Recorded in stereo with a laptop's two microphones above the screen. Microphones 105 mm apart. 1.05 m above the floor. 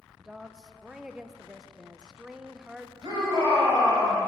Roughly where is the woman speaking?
Centre.